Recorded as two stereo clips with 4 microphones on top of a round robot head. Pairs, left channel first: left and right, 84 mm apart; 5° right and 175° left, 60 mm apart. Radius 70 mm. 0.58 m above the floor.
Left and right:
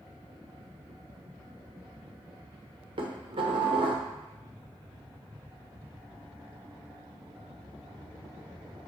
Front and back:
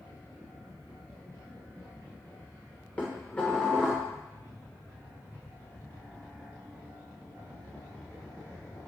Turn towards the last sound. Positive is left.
turn(degrees=-80)